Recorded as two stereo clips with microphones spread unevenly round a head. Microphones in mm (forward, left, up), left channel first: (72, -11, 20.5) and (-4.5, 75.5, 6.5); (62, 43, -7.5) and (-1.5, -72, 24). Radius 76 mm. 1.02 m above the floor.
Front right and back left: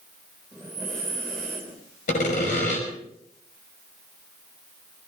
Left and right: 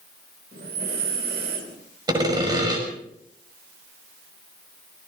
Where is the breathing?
135° right, 3 m.